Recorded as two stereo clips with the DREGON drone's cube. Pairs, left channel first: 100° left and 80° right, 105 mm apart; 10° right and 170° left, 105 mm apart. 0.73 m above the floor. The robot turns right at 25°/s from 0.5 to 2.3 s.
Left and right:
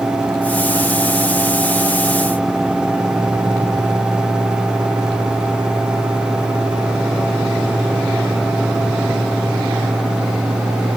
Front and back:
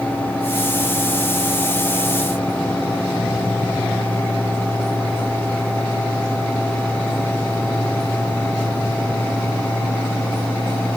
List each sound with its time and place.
Only background noise.